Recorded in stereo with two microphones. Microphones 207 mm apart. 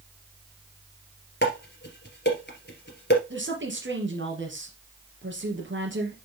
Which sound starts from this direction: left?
Dishes clattering, at 1.4 s.